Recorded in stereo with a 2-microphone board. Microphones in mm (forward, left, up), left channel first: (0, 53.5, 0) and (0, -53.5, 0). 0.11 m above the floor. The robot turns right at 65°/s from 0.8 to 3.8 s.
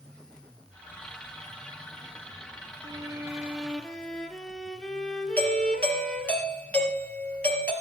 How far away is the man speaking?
I don't hear a man speaking.